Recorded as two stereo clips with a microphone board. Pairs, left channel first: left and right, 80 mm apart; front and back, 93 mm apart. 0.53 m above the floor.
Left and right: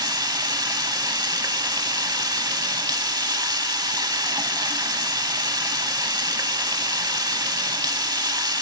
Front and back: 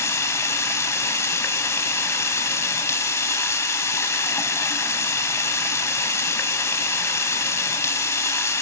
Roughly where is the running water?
Ahead right.